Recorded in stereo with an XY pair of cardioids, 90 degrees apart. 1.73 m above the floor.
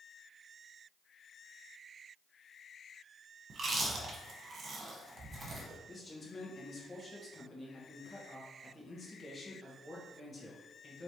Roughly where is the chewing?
Ahead right.